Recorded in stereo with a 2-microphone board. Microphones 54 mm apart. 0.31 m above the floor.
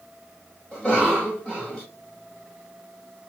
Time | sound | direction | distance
0.7 | a cough | 15° left (ahead or behind) | 1.3 m